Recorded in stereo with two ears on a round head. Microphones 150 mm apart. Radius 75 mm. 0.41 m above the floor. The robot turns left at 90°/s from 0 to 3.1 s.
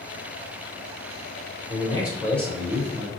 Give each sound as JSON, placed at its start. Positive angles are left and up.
{"t": 1.7, "sound": "a man speaking", "azimuth_deg": 75, "distance_m": 1.6}